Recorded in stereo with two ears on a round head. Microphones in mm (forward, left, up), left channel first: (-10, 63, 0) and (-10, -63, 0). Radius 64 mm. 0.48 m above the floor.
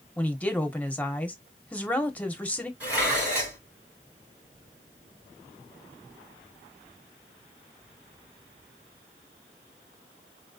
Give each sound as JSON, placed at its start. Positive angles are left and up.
{"t": 0.2, "sound": "a woman speaking", "side_deg": 10, "distance_m": 0.9}
{"t": 2.8, "sound": "dishes clattering", "side_deg": -10, "distance_m": 3.5}